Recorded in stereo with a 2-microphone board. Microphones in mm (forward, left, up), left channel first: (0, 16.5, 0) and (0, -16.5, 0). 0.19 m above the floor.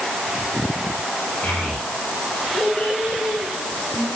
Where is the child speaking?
50° left (ahead or behind), 10 m; by 4.0 s 55° left (ahead or behind), 11 m.